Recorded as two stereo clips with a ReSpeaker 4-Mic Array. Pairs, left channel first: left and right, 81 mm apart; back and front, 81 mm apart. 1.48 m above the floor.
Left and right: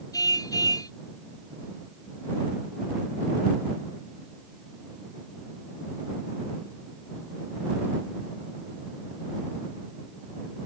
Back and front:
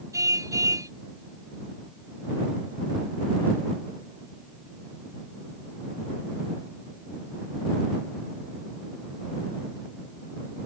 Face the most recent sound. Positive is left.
turn(degrees=50)